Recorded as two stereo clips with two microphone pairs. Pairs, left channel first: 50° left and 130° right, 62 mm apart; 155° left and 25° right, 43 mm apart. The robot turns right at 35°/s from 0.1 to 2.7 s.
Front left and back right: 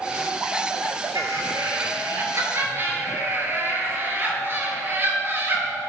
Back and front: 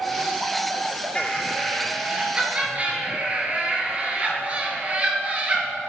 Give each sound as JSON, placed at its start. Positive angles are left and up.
{"t": 1.1, "sound": "laughter", "azimuth_deg": -140, "distance_m": 4.0}